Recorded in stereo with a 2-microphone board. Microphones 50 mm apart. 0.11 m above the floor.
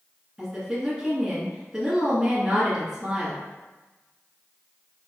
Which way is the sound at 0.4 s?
15° right (ahead or behind).